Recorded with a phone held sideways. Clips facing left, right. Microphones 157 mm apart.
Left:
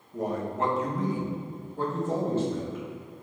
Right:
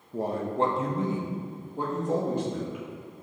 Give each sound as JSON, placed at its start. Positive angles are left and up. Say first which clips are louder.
{"t": 0.1, "sound": "a man speaking", "louder": "right 2 dB", "side_deg": -30, "distance_m": 0.6}